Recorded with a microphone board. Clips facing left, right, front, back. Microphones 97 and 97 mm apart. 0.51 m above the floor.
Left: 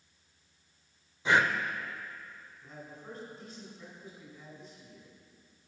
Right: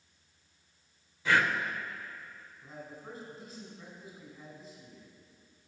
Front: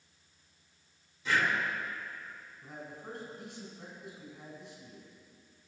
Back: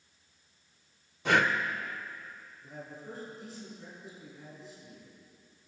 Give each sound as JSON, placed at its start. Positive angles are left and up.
{"t": 1.2, "sound": "breathing", "azimuth_deg": 160, "distance_m": 0.6}
{"t": 2.6, "sound": "a man speaking", "azimuth_deg": -10, "distance_m": 4.0}